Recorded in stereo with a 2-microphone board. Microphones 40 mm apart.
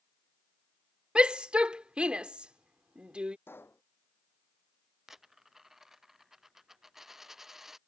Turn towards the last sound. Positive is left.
turn(degrees=-10)  # may be behind; listen again after turning